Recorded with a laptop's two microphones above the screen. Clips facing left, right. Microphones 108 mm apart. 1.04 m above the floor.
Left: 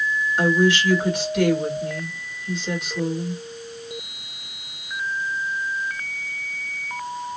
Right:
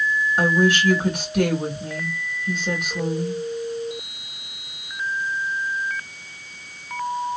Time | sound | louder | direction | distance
0.4 | a woman speaking | left 1 dB | 45° right (ahead or behind) | 2.0 m